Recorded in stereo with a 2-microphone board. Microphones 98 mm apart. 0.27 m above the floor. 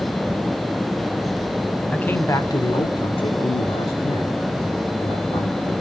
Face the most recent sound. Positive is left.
turn(degrees=80)